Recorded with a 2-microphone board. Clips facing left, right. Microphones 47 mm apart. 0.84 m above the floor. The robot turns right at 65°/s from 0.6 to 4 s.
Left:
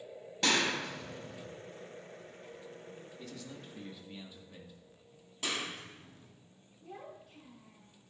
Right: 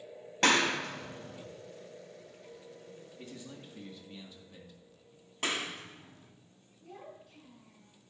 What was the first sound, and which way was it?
A clap, 50° right (ahead or behind).